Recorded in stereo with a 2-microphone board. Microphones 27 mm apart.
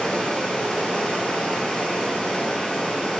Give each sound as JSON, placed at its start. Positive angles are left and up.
{"t": 0.0, "sound": "running water", "side_deg": 35, "distance_m": 0.9}